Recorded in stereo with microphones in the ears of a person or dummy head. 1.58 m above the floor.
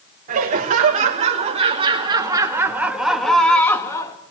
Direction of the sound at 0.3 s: 45° right (ahead or behind).